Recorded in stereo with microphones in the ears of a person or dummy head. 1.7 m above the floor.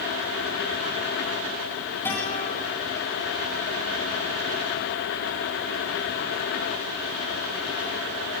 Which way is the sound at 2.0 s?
15° left (ahead or behind).